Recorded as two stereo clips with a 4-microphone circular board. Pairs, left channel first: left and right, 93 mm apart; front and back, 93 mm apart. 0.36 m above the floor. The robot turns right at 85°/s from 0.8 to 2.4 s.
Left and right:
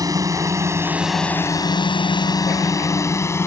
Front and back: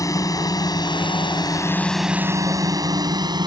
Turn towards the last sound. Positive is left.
turn(degrees=150)